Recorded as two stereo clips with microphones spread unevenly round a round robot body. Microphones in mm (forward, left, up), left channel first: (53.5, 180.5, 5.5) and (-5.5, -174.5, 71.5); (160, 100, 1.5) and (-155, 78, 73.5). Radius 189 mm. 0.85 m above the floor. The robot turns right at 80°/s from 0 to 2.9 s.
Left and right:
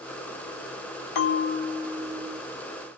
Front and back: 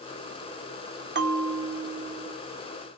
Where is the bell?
125° left, 0.7 m; by 2.4 s 135° right, 0.7 m.